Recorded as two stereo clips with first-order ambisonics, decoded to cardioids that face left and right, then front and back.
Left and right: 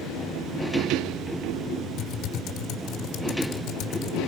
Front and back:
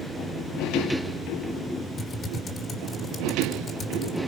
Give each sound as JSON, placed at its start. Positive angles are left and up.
{"t": 2.0, "sound": "typing on a keyboard", "azimuth_deg": 60, "distance_m": 1.2}